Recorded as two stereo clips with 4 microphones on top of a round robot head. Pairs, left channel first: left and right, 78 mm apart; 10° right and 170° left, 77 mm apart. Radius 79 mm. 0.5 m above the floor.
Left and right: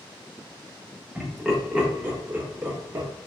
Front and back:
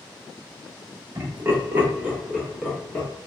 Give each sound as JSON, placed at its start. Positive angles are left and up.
{"t": 1.1, "sound": "laughter", "azimuth_deg": -175, "distance_m": 1.5}